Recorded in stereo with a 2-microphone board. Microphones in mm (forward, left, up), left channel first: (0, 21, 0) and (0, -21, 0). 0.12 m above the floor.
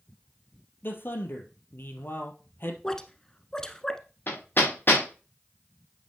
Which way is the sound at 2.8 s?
15° left (ahead or behind).